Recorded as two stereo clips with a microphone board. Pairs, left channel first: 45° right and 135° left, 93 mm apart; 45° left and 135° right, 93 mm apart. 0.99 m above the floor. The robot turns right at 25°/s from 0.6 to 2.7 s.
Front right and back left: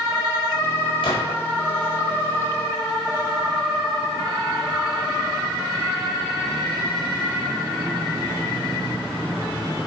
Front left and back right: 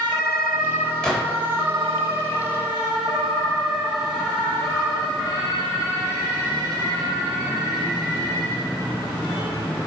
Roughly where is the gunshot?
Ahead right.